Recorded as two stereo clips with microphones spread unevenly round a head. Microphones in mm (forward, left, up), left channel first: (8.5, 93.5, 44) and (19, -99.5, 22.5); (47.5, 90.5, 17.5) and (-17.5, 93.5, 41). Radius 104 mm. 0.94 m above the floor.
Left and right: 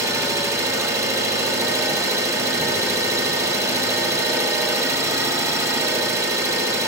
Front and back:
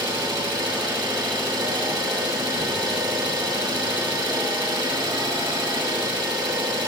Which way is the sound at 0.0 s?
160° right.